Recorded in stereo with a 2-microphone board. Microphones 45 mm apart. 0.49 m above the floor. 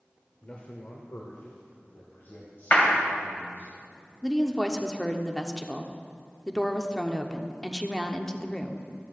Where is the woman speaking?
10° left (ahead or behind), 0.8 m.